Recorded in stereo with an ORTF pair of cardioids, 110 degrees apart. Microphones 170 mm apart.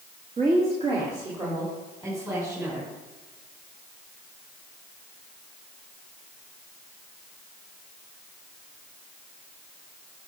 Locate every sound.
0.4 s a woman speaking: 45° right, 2 m; by 2.9 s 15° right, 5.5 m